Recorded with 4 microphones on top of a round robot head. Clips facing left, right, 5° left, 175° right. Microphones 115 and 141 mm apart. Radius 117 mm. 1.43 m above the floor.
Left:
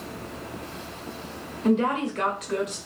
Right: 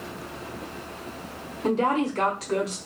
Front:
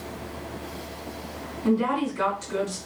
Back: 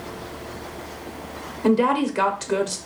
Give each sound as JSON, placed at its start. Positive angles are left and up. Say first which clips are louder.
{"t": 1.6, "sound": "a woman speaking", "louder": "even, back 5 dB", "azimuth_deg": -150, "distance_m": 0.9}